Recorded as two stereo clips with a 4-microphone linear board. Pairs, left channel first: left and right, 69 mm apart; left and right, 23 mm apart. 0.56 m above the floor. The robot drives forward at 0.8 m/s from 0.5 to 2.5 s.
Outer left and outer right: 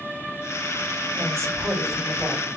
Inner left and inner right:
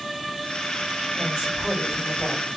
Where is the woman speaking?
40° right (ahead or behind), 4 m; by 2.5 s 35° right (ahead or behind), 4.5 m.